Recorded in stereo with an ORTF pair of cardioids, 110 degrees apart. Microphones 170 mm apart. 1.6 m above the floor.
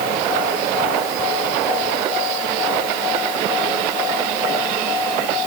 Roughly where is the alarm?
I don't hear an alarm.